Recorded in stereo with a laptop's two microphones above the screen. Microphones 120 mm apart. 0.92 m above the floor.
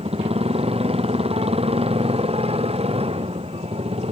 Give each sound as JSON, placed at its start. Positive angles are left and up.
{"t": 0.0, "sound": "a motorcycle", "side_deg": -55}